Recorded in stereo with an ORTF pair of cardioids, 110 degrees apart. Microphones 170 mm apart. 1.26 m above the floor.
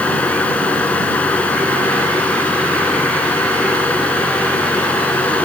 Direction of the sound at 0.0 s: 10° left.